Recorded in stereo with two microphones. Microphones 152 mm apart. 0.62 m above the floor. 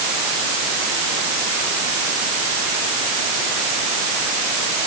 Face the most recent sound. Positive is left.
No sound to turn to.